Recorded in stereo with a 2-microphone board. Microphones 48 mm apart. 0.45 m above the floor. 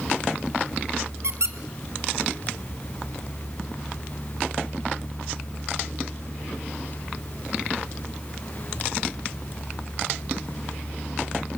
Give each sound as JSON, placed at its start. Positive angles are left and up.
{"t": 1.2, "sound": "a squeak", "side_deg": -75, "distance_m": 1.3}